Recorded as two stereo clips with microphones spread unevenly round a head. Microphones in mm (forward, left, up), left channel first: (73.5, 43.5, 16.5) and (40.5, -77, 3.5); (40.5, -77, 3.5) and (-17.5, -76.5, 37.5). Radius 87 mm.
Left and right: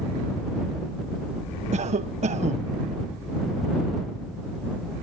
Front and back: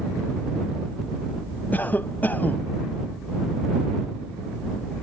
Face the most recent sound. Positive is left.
turn(degrees=-75)